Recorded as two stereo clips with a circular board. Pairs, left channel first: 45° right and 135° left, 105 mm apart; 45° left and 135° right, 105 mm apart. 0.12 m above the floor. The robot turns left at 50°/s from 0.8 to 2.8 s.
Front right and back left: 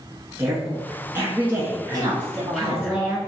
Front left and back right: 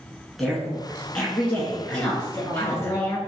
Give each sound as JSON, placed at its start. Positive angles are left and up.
{"t": 0.4, "sound": "a woman speaking", "azimuth_deg": 140, "distance_m": 1.1}
{"t": 1.9, "sound": "a woman speaking", "azimuth_deg": 125, "distance_m": 1.3}